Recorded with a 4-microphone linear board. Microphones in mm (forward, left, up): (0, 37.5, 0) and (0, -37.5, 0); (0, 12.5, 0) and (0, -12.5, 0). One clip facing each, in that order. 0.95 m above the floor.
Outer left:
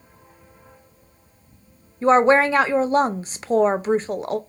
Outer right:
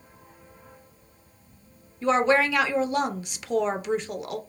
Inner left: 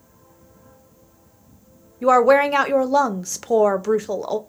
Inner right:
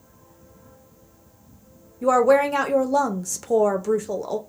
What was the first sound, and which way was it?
A woman speaking, 35° left (ahead or behind).